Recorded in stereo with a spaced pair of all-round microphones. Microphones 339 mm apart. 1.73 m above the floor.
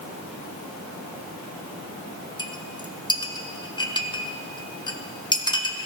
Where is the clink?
15° left (ahead or behind), 0.9 m.